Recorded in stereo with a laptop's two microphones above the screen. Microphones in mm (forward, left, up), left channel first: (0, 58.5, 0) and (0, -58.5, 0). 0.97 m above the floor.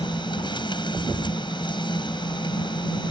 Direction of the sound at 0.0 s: 45° left (ahead or behind).